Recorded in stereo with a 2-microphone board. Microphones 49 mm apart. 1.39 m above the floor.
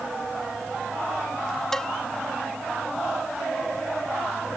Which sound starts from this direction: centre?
A cowbell, at 1.7 s.